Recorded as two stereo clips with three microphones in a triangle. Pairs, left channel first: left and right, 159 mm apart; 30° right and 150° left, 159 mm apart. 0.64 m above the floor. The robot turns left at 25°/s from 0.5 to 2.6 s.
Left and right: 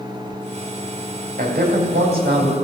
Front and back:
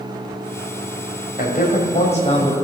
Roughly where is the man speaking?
Ahead right.